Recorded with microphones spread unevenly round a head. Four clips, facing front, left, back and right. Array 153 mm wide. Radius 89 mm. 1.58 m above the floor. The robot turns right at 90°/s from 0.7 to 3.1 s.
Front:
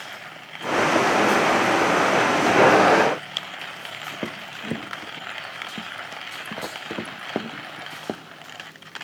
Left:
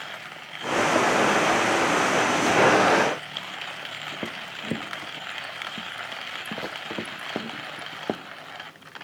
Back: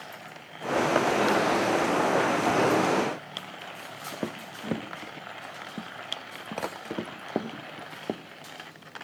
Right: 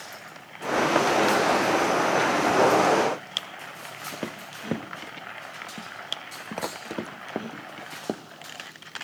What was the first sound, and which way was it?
Only background noise.